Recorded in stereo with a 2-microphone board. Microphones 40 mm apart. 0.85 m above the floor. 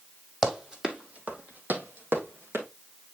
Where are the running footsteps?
10° right (ahead or behind), 2.5 m; by 2.6 s 75° right (ahead or behind), 3.5 m.